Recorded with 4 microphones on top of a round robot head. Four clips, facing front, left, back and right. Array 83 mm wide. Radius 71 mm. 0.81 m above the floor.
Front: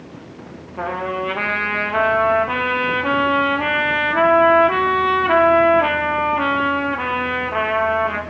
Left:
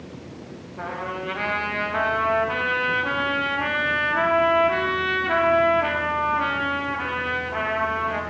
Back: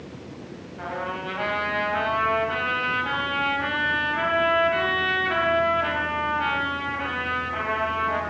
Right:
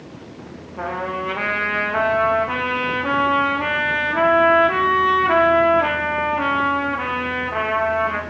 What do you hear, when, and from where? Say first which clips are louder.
0.8 s a trumpet: right 5 dB, front 7 dB; 20° right, 4.5 m